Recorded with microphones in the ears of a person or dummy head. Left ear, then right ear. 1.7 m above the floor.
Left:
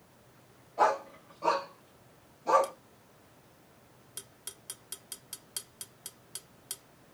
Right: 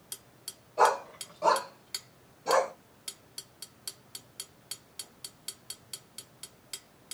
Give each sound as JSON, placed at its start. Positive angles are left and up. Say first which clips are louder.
{"t": 0.8, "sound": "a dog barking", "louder": "right 2 dB", "side_deg": -25, "distance_m": 2.5}